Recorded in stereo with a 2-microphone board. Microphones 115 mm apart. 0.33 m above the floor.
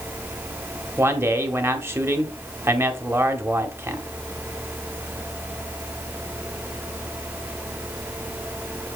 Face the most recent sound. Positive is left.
turn(degrees=-20)  # may be behind; listen again after turning